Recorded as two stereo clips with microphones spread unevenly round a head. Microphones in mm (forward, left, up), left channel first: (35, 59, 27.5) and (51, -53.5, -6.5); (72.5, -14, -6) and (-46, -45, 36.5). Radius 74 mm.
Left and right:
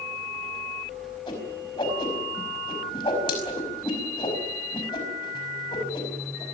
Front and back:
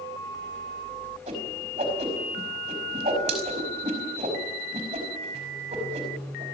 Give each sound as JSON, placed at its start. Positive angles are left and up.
{"t": 1.3, "sound": "a whoosh", "azimuth_deg": 155, "distance_m": 5.0}